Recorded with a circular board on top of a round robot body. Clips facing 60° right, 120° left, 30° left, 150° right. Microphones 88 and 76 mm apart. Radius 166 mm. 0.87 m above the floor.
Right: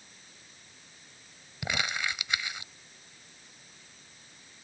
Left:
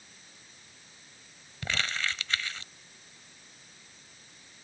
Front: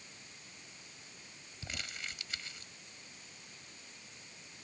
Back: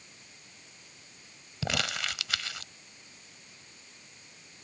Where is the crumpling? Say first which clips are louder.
Right 1 dB, back 12 dB; 135° right.